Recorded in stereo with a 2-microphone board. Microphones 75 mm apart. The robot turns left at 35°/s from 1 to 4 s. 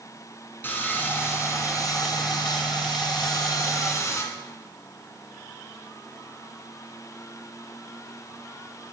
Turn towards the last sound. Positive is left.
turn(degrees=45)